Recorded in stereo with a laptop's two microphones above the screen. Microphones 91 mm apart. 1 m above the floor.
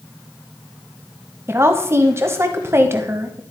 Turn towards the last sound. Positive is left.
turn(degrees=-30)  # may be behind; listen again after turning